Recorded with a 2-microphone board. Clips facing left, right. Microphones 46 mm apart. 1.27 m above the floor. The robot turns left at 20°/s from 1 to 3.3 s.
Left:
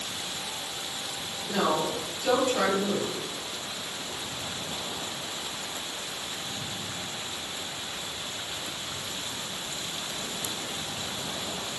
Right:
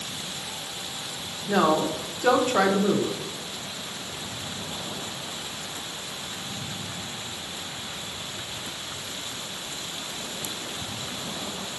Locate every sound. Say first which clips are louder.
1.5 s a woman speaking: right 5 dB; 60° right, 0.8 m; by 3.2 s 95° right, 0.8 m